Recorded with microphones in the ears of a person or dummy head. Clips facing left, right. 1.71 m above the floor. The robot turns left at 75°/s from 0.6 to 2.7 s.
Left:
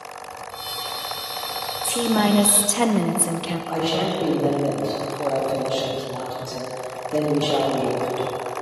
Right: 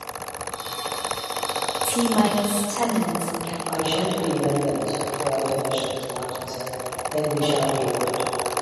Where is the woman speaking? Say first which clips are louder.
Left 1 dB; straight behind, 0.5 m; by 3.6 s 115° left, 0.5 m.